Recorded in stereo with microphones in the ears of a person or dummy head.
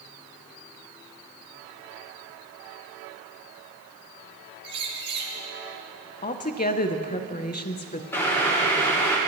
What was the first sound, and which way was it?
A bird, 30° right (ahead or behind).